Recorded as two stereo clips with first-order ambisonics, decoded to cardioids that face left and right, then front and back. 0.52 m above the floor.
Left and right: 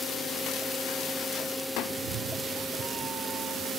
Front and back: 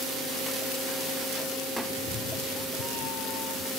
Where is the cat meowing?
70° right; by 3.7 s 5° right.